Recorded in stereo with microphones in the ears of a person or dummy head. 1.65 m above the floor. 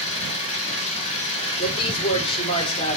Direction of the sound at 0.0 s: 35° left (ahead or behind).